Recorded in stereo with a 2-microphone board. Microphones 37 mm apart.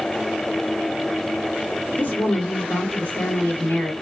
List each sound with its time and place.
2.0 s a woman speaking: 60° left (ahead or behind), 1.7 m